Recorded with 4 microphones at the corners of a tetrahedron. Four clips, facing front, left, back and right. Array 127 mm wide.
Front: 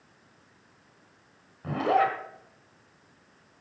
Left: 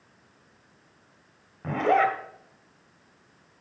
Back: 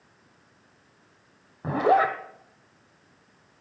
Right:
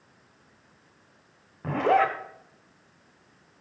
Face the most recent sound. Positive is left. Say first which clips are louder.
# even, back 3 dB
turn(degrees=-170)